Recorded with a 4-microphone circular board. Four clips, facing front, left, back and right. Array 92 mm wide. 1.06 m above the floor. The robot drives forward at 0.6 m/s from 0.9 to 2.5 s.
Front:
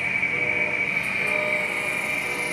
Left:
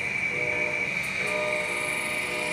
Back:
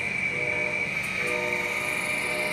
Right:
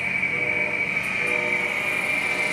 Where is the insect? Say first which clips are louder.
Right 3 dB, front 4 dB; 40° right, 1.5 m; by 2.5 s 80° right, 1.0 m.